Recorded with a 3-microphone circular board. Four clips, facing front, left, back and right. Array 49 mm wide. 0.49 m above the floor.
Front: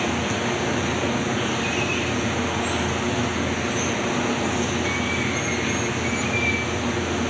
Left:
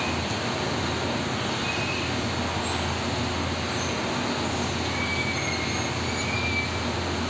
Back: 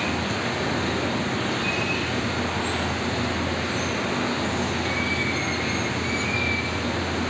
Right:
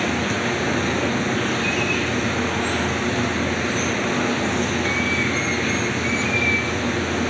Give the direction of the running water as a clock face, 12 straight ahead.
3 o'clock.